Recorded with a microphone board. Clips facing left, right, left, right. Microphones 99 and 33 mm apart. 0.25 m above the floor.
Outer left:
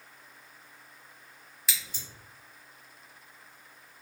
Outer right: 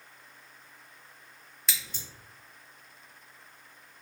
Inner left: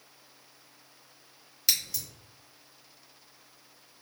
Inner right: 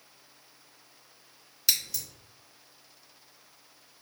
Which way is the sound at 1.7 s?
Centre (ahead or behind).